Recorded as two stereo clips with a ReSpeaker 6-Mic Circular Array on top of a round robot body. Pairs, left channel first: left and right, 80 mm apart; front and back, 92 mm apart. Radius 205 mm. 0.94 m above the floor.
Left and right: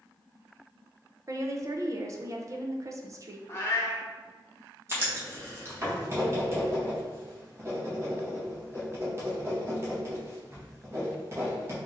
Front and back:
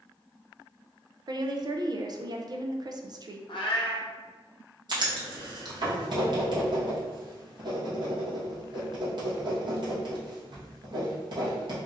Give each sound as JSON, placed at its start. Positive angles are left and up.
{"t": 1.3, "sound": "a woman speaking", "azimuth_deg": -135, "distance_m": 0.6}
{"t": 3.5, "sound": "a cat meowing", "azimuth_deg": 30, "distance_m": 0.6}
{"t": 4.9, "sound": "writing", "azimuth_deg": -145, "distance_m": 1.6}